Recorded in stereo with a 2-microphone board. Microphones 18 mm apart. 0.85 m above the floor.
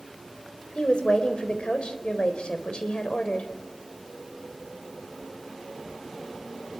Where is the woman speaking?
75° left (ahead or behind), 4 m.